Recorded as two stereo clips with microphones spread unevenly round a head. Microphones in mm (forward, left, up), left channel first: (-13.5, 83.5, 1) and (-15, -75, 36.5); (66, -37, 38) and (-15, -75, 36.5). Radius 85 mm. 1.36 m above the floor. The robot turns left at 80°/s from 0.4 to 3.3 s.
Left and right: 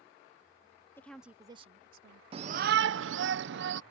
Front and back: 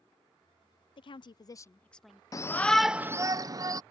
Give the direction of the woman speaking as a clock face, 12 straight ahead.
11 o'clock.